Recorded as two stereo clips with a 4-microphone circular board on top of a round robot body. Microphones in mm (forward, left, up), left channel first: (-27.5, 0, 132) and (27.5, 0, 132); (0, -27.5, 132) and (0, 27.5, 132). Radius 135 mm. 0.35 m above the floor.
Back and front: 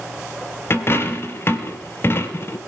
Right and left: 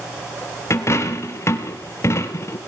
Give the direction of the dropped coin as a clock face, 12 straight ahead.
4 o'clock.